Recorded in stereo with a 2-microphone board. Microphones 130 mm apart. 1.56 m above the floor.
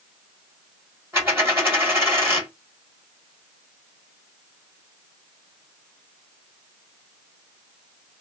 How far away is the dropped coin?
About 1.4 m.